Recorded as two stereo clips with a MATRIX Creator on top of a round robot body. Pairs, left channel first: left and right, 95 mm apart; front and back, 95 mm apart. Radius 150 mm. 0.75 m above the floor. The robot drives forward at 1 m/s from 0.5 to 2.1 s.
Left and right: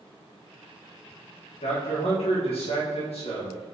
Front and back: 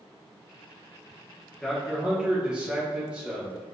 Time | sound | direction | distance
1.6 | a man speaking | 85° left | 1.7 m